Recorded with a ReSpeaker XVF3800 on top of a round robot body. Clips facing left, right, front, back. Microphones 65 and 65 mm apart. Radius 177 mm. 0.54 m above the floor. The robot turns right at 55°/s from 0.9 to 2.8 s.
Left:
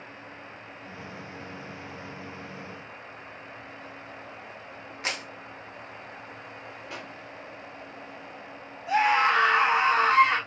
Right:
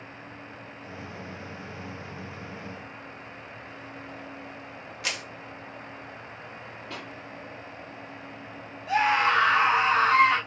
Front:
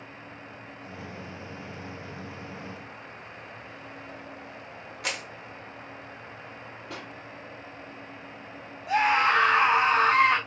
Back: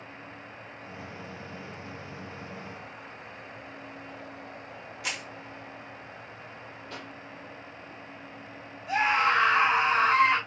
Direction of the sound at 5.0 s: 35° left.